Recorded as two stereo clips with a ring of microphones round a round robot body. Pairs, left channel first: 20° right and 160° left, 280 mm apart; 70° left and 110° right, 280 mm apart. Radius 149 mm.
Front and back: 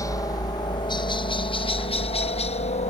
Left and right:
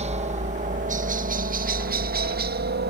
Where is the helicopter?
85° right; by 2.9 s 80° right.